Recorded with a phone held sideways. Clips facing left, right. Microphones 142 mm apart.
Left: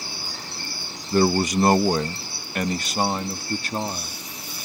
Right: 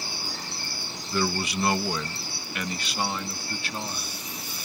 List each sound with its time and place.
1.1 s a man speaking: 40° left (ahead or behind)